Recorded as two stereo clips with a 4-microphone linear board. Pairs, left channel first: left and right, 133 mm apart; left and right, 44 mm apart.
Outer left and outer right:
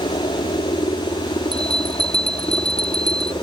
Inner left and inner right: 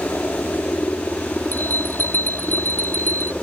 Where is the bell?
45° left (ahead or behind).